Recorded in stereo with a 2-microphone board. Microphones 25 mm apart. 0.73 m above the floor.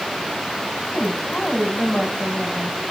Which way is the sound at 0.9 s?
50° left (ahead or behind).